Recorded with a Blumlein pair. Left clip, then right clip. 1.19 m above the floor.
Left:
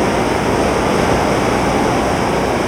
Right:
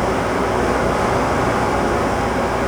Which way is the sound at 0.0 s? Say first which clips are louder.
Left 3 dB; 30° left.